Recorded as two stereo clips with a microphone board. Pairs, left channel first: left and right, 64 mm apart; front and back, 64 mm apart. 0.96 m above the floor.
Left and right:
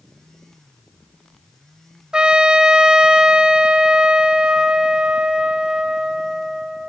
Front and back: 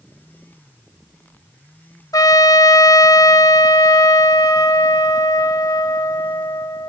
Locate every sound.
2.1 s a trumpet: 15° right, 1.4 m